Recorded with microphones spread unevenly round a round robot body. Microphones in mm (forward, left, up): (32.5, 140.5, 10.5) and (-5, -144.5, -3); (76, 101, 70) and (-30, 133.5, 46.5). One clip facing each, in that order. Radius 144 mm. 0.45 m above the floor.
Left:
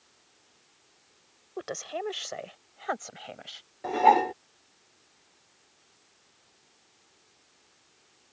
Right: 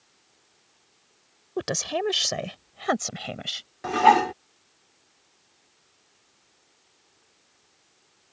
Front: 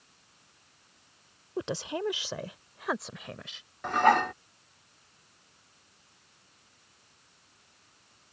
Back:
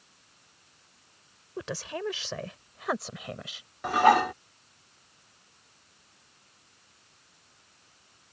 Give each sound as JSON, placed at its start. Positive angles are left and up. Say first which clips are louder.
{"t": 1.6, "sound": "a woman speaking", "louder": "right 7 dB, front 2 dB", "azimuth_deg": -90}
{"t": 3.8, "sound": "dishes clattering", "louder": "right 2 dB, back 2 dB", "azimuth_deg": -135}